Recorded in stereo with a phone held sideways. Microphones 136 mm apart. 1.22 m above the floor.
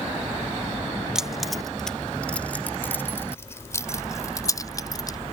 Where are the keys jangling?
5° right (ahead or behind); by 5.2 s 30° left (ahead or behind).